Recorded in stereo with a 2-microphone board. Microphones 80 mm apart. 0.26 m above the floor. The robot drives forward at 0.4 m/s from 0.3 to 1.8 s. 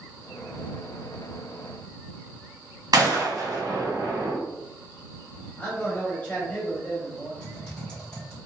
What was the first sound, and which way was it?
A gunshot, 55° right (ahead or behind).